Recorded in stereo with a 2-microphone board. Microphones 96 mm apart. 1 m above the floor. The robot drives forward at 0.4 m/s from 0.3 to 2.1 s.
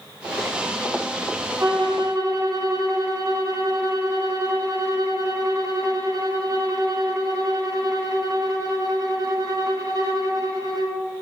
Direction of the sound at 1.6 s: 55° right (ahead or behind).